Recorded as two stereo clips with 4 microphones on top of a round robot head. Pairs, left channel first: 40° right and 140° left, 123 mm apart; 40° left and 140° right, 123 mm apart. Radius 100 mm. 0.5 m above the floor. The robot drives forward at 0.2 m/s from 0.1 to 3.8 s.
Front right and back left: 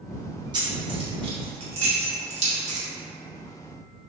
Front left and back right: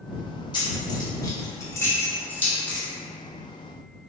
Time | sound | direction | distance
0.5 | keys jangling | 90° left | 0.9 m